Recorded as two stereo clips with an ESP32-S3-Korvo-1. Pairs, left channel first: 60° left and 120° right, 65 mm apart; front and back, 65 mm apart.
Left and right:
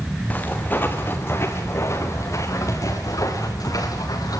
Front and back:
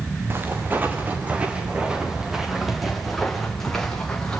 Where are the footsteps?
130° left, 3.5 m; by 4.4 s 80° left, 5.5 m.